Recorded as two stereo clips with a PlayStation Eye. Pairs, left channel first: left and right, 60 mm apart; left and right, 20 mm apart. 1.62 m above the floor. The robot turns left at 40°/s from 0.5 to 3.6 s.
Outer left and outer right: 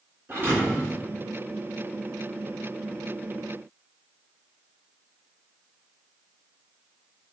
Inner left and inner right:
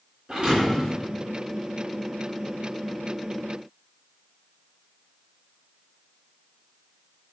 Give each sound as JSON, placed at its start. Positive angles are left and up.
{"t": 0.3, "sound": "a thud", "side_deg": -45, "distance_m": 3.5}